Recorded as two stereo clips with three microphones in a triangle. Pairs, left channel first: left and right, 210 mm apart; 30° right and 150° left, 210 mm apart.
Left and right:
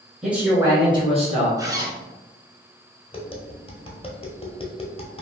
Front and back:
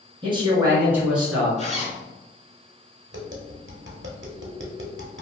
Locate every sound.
0.2 s a man speaking: 175° right, 1.2 m; by 1.5 s 120° right, 1.4 m
1.6 s a zipper: 30° right, 0.7 m
3.1 s tapping: 145° left, 0.8 m